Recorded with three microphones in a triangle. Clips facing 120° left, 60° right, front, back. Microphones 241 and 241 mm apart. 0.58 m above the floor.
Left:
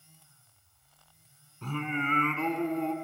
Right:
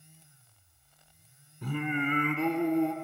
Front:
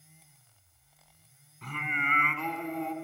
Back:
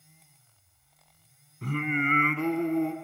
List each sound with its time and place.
1.6 s singing: 135° right, 0.9 m